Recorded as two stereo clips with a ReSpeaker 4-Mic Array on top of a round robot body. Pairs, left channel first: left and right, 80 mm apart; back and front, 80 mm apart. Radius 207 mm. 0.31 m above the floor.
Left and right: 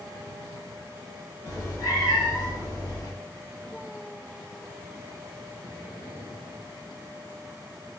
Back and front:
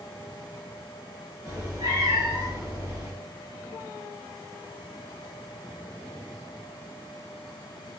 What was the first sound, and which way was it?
A cat meowing, 50° left.